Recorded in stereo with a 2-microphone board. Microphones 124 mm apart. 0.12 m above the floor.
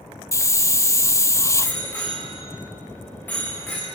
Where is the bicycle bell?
15° left (ahead or behind), 9 m.